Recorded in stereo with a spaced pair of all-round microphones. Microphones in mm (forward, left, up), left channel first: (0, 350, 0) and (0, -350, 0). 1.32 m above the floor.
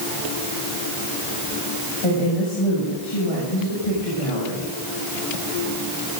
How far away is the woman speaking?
About 7 m.